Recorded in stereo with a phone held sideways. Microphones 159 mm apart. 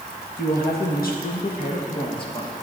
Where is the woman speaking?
75° left (ahead or behind), 1.6 m; by 2.5 s 25° left (ahead or behind), 1.2 m.